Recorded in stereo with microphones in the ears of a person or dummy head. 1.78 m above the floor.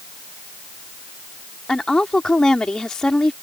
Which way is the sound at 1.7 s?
15° left (ahead or behind).